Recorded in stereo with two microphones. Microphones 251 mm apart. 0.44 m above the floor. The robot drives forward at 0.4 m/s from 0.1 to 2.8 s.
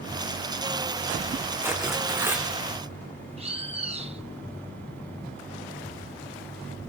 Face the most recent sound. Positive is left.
turn(degrees=-25)  # may be behind; listen again after turning